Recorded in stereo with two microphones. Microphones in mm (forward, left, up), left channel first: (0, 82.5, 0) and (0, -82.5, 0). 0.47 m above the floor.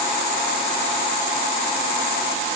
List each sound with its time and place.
Only background noise.